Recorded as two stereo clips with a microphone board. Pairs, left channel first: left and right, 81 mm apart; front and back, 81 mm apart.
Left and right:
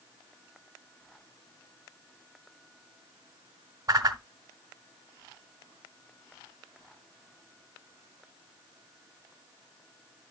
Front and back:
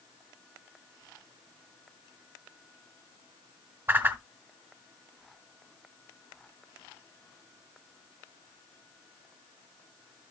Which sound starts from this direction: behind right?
A whoosh, at 3.9 s.